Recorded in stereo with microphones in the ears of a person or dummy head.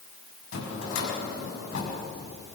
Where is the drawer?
80° left, 6 m.